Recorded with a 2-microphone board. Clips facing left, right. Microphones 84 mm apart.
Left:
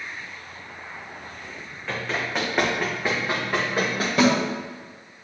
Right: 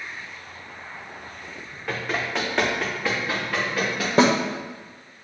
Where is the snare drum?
35° right (ahead or behind), 1.0 m.